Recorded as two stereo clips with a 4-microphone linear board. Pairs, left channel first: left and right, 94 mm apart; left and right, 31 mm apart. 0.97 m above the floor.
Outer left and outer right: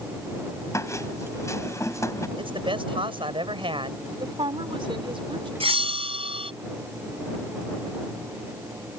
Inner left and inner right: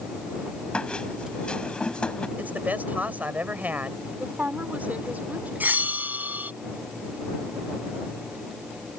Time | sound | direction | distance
0.7 | a squeak | 35° left (ahead or behind) | ?
2.4 | a man speaking | 65° right (ahead or behind) | ?
4.2 | a woman speaking | 65° right (ahead or behind) | ?
5.6 | a bell | 80° right | ?